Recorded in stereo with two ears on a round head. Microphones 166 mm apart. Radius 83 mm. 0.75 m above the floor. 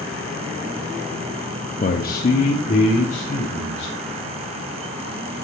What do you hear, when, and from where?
1.8 s a man speaking: 40° left (ahead or behind), 0.6 m